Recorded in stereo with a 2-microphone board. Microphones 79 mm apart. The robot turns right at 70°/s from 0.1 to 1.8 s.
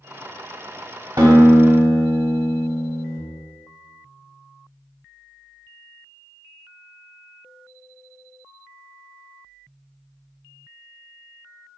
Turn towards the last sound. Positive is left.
turn(degrees=-25)